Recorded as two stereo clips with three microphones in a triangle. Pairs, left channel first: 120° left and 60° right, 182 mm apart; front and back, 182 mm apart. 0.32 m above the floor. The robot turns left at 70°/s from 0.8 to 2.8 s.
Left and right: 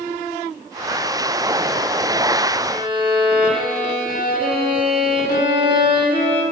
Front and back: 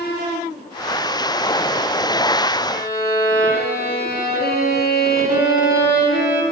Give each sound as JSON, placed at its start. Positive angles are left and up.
{"t": 2.7, "sound": "a violin", "azimuth_deg": 10, "distance_m": 1.8}